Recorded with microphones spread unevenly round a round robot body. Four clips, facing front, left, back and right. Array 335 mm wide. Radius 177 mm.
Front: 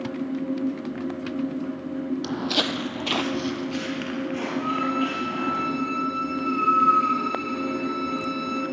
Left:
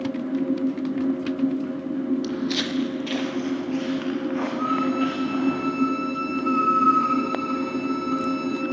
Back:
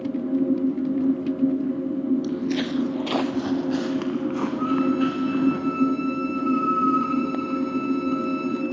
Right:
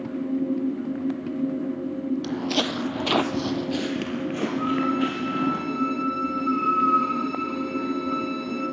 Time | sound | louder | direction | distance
2.2 | footsteps | even, back 2 dB | 25° right | 1.6 m
4.6 | a violin | even, back 4 dB | 150° left | 3 m